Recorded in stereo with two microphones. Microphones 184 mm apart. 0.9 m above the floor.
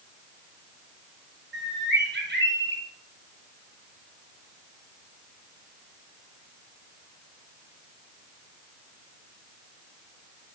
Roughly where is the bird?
Right.